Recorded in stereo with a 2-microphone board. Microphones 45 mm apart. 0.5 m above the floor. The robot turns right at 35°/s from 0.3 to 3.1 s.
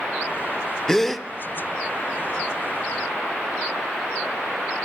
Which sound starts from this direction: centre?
A gasp, at 0.9 s.